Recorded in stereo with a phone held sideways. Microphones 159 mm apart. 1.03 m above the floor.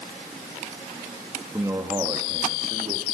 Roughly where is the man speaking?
Centre.